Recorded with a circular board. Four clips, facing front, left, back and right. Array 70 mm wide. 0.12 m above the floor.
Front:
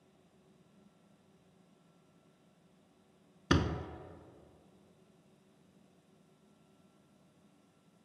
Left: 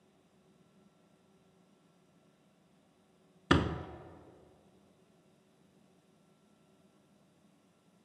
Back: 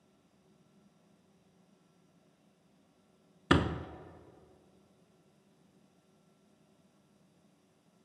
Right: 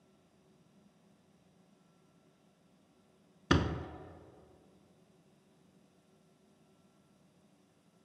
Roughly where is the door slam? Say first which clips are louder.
Left 2 dB, back 3 dB; behind left.